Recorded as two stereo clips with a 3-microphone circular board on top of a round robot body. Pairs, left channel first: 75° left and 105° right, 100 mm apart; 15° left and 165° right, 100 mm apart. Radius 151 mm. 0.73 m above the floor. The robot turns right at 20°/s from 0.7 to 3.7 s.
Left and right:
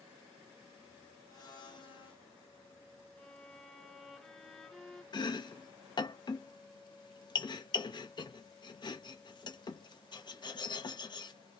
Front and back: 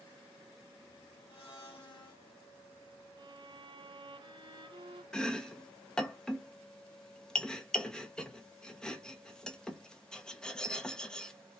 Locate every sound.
1.3 s a blender: 25° left, 2 m; by 2.2 s 45° left, 2 m
3.2 s a violin: 155° left, 1.1 m; by 5.0 s 165° left, 1.1 m
5.1 s chopping: 95° left, 1.1 m